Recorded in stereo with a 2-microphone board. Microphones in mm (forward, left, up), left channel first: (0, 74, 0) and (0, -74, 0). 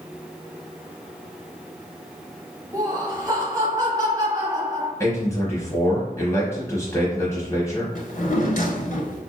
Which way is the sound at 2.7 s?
25° right (ahead or behind).